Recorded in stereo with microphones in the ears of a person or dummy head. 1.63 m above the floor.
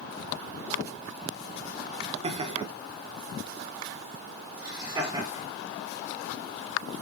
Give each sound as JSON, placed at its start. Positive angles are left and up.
{"t": 2.2, "sound": "laughter", "side_deg": -30, "distance_m": 0.7}